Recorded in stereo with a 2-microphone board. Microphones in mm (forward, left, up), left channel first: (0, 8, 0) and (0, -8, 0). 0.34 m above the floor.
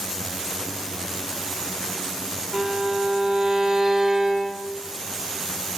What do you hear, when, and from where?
2.5 s a violin: 35° right (ahead or behind), 2 m